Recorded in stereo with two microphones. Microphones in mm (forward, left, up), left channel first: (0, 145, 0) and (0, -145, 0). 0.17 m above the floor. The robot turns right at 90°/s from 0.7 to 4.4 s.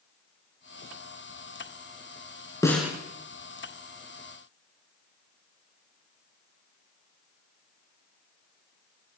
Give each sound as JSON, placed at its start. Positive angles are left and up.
{"t": 2.6, "sound": "a snare drum", "side_deg": 15, "distance_m": 1.0}